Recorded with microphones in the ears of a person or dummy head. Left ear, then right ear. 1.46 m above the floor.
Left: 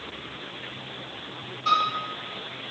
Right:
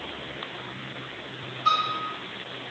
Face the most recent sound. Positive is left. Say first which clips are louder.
# even
turn(degrees=-40)  # may be behind; listen again after turning